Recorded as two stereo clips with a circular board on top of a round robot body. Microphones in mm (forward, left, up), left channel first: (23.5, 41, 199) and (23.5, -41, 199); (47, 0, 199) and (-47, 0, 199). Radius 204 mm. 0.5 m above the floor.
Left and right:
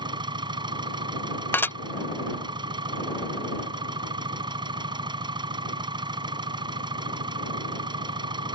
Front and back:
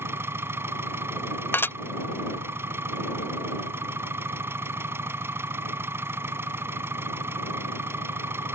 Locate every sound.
0.0 s an engine running: 115° right
1.5 s dishes clattering: 50° left